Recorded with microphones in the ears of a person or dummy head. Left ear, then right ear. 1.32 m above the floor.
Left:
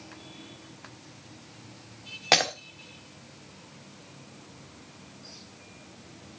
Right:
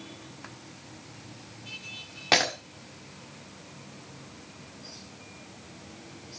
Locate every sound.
2.3 s breaking glass: 40° left (ahead or behind), 1.5 m